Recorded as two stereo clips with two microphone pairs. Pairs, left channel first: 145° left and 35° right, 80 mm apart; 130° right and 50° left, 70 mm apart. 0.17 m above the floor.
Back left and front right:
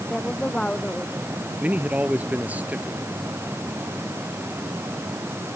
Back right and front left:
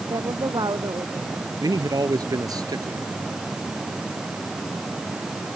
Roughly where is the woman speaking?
Ahead left.